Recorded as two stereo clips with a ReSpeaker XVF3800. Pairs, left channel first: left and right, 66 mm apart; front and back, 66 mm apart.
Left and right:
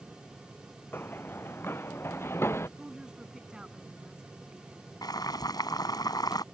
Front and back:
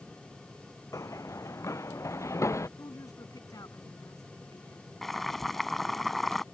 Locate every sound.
0.9 s running footsteps: 30° left; by 2.7 s 40° left
2.8 s a woman speaking: 15° right
5.0 s boiling: 90° left